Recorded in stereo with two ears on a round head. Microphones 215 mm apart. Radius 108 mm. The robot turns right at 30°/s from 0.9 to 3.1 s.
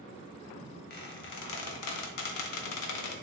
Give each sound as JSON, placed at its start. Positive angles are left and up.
{"t": 0.9, "sound": "a squeak", "side_deg": 40, "distance_m": 0.8}